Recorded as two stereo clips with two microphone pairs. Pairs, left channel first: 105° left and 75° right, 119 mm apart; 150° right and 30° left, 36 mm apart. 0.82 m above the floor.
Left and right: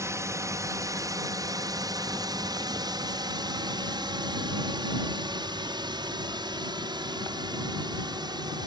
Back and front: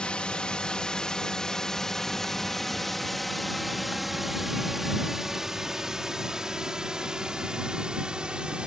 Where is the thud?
No thud in this recording.